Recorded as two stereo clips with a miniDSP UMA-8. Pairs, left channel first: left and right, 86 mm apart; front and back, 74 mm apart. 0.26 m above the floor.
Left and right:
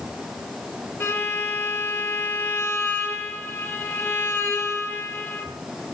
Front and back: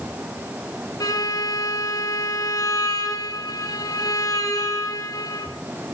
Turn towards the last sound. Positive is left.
turn(degrees=30)